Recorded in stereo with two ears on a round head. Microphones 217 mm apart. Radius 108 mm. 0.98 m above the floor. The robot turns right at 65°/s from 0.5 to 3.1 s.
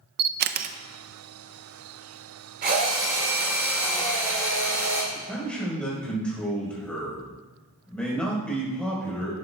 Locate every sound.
0.2 s a camera shutter: 40° right (ahead or behind), 0.5 m; by 0.8 s 25° right (ahead or behind), 0.5 m
2.6 s a drill: 45° right, 4.5 m; by 5.0 s 10° right, 4.5 m
5.1 s a man speaking: 5° left (ahead or behind), 4 m